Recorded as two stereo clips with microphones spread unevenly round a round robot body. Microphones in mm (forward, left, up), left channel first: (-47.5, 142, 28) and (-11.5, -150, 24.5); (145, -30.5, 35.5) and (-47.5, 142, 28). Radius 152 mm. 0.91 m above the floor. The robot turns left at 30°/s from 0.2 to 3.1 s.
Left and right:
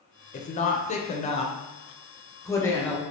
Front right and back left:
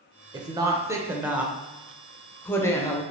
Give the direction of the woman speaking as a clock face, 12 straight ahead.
9 o'clock.